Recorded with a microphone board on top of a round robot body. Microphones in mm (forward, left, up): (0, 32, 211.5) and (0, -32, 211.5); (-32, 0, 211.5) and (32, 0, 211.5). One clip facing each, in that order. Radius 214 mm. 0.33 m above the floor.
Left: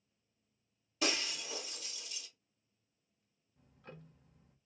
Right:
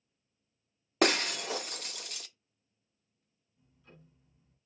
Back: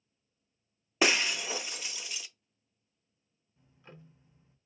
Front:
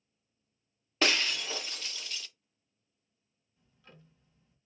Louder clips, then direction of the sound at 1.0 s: Right 9 dB, back 2 dB; 105° right.